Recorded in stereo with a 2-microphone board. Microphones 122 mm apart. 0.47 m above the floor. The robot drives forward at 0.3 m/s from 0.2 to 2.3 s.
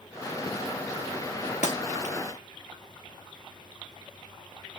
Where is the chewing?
I don't hear chewing.